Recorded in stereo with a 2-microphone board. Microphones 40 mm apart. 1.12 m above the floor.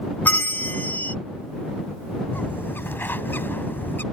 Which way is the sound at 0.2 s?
50° left (ahead or behind).